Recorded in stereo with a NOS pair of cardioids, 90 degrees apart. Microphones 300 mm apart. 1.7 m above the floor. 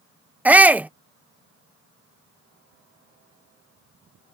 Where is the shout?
5° right.